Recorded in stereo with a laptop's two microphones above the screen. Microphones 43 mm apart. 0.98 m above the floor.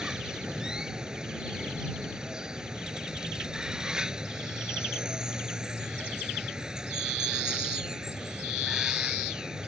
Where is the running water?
15° right (ahead or behind).